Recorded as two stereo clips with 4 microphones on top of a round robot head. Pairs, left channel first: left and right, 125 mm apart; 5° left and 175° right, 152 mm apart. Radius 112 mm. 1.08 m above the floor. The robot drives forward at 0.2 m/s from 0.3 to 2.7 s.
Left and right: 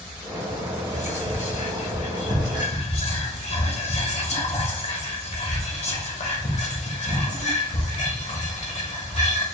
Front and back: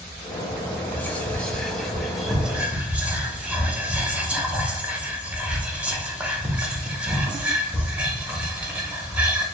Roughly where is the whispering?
Left.